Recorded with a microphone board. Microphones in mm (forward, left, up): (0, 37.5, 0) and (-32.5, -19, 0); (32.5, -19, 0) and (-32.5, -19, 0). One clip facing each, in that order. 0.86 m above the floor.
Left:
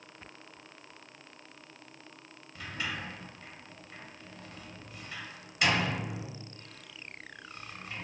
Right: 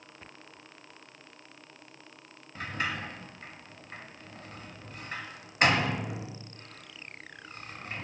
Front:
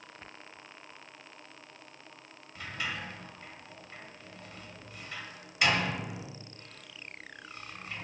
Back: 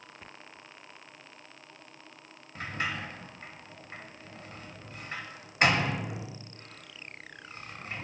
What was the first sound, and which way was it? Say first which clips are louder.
A sliding door: right 4 dB, back 3 dB; 145° right.